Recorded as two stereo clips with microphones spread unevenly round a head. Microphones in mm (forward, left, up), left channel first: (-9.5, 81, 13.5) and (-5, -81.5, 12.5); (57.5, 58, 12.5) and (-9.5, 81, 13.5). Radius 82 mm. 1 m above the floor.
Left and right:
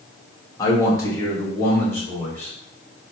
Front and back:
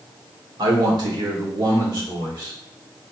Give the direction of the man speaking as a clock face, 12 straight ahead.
7 o'clock.